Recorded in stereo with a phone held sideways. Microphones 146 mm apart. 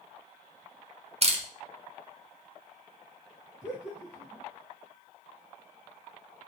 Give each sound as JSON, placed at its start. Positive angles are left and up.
{"t": 1.2, "sound": "a camera shutter", "side_deg": -45, "distance_m": 0.5}
{"t": 3.6, "sound": "laughter", "side_deg": -10, "distance_m": 1.3}